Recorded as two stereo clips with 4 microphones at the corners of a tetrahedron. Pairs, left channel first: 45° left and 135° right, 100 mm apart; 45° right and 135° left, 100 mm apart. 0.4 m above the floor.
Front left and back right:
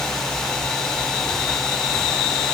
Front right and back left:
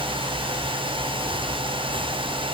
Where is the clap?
I don't hear a clap.